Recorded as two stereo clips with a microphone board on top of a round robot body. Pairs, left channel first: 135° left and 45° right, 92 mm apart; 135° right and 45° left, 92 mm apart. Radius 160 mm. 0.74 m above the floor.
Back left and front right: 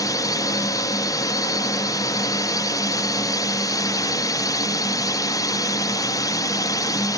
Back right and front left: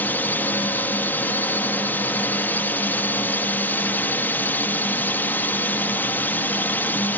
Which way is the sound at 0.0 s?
160° left.